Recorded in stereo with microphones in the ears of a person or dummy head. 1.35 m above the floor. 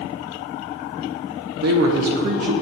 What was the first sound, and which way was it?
A man speaking, 65° right (ahead or behind).